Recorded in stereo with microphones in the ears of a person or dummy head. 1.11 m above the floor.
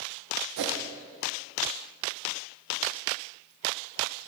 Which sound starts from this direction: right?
A whoosh, at 0.6 s.